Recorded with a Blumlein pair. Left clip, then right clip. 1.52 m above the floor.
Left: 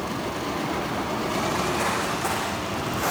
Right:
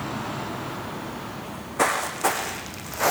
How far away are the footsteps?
About 7 m.